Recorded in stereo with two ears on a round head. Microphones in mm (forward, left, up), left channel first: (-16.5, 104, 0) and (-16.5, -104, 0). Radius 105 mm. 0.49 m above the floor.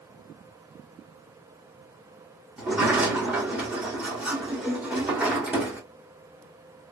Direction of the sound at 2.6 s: 5° right (ahead or behind).